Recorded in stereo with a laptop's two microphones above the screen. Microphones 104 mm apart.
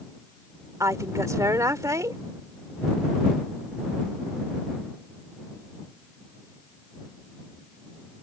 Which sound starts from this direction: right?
A woman speaking, at 0.8 s.